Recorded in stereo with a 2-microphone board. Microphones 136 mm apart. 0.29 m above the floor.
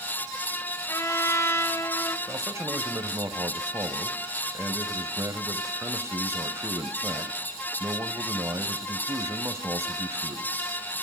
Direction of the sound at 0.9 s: 20° left (ahead or behind).